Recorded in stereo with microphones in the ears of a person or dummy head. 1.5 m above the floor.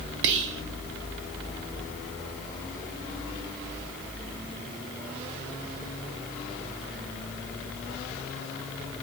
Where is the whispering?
70° right (ahead or behind), 0.5 m.